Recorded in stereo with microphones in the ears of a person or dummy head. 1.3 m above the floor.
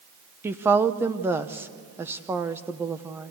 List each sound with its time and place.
0.4 s a woman speaking: 20° right (ahead or behind), 0.9 m